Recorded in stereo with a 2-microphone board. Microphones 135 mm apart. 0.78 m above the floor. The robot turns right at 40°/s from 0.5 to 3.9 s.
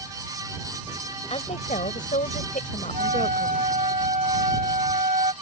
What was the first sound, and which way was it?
A woman speaking, 50° left.